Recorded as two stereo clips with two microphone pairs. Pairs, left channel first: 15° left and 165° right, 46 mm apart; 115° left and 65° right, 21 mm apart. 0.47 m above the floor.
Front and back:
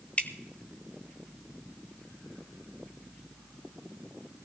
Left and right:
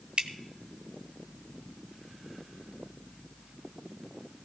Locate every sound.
0.2 s dripping: 40° right, 0.9 m